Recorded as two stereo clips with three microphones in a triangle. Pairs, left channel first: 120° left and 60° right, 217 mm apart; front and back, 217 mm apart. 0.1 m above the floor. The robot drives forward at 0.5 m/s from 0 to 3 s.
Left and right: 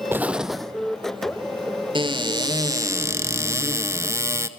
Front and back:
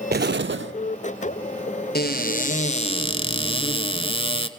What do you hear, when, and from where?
0.1 s an explosion: 140° right, 0.6 m; by 0.7 s 155° right, 0.8 m
1.9 s a cupboard door: straight ahead, 1.2 m